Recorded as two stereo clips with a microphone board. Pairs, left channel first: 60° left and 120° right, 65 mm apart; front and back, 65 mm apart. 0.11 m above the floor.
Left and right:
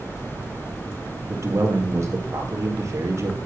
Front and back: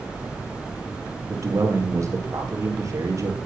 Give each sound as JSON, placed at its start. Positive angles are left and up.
{"t": 1.3, "sound": "a man speaking", "azimuth_deg": -150, "distance_m": 2.5}